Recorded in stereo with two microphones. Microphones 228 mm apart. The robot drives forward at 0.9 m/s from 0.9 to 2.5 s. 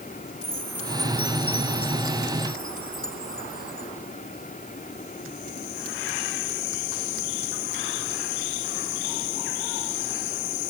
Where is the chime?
75° left (ahead or behind); by 3.9 s 70° left (ahead or behind).